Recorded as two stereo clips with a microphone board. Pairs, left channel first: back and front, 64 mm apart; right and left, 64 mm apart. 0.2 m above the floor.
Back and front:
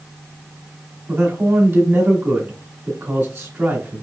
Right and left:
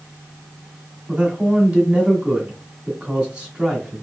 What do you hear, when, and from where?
1.1 s a man speaking: 25° left, 2 m